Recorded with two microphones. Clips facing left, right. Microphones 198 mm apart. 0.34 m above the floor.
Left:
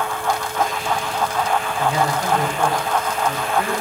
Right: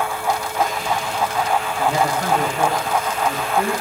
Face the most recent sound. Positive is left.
turn(degrees=-60)  # may be behind; listen again after turning